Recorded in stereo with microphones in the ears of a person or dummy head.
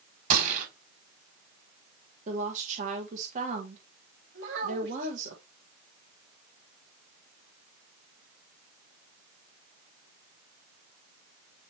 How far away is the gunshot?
About 5 m.